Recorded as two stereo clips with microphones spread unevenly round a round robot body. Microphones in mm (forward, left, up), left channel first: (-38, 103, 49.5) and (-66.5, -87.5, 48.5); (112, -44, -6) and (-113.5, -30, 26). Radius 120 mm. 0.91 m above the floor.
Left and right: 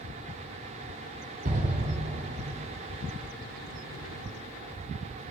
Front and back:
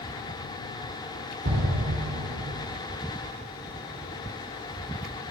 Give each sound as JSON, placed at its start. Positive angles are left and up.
{"t": 1.4, "sound": "an explosion", "azimuth_deg": -145, "distance_m": 2.5}